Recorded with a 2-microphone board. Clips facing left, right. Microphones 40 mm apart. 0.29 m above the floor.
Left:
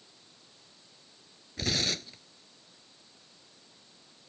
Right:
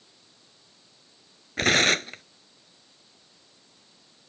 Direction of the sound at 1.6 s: 60° right (ahead or behind).